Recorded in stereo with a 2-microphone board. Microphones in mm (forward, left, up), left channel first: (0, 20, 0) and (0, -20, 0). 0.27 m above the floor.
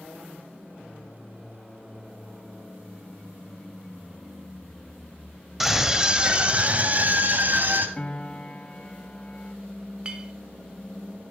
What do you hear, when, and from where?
5.6 s a scream: 5° right (ahead or behind), 1.1 m; by 7.9 s 50° right (ahead or behind), 1.8 m
8.0 s a piano: 30° left (ahead or behind), 0.8 m
10.1 s a clink: 20° right (ahead or behind), 1.0 m